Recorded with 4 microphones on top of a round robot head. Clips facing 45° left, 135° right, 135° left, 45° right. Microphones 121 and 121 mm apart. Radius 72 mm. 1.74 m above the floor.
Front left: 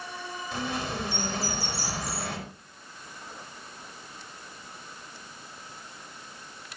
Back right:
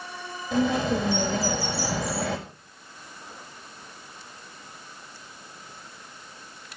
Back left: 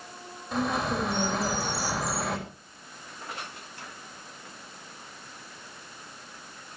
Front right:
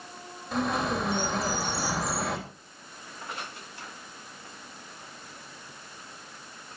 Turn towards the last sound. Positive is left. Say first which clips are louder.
# back right 10 dB, even
turn(degrees=-135)